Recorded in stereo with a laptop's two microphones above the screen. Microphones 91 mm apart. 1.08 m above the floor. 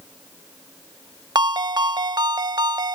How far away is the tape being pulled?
No tape being pulled in this recording.